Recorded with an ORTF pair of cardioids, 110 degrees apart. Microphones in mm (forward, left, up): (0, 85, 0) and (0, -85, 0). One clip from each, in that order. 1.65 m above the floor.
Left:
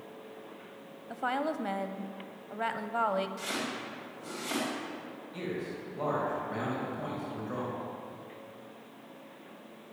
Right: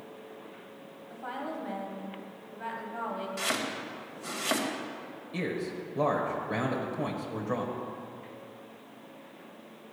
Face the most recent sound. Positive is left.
turn(degrees=-65)